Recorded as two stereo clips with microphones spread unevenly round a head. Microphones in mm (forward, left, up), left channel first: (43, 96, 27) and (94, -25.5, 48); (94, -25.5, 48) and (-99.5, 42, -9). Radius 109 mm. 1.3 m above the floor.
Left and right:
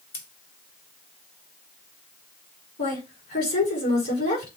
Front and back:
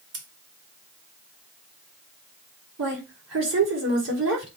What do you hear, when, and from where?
0.1 s scissors: 125° left, 2.5 m
2.8 s a woman speaking: 130° left, 5 m